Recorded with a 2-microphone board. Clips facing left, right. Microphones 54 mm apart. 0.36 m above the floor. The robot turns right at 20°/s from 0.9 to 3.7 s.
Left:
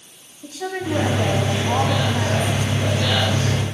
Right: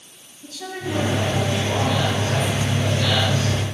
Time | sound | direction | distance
0.4 | a woman speaking | 25° left | 2.5 m